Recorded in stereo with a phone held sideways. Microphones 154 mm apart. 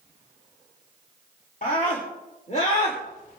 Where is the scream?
70° left (ahead or behind), 3 m; by 3.0 s 45° left (ahead or behind), 3 m.